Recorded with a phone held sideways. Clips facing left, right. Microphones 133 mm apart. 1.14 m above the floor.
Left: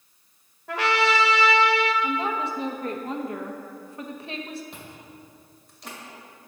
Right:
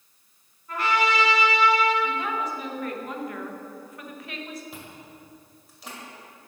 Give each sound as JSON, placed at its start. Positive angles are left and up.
{"t": 0.7, "sound": "a trumpet", "side_deg": 85, "distance_m": 0.9}
{"t": 2.0, "sound": "a woman speaking", "side_deg": 30, "distance_m": 0.8}
{"t": 4.7, "sound": "chewing", "side_deg": -5, "distance_m": 1.9}